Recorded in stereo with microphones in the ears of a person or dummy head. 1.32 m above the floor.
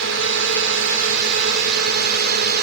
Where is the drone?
75° right (ahead or behind); by 2.6 s 55° right (ahead or behind).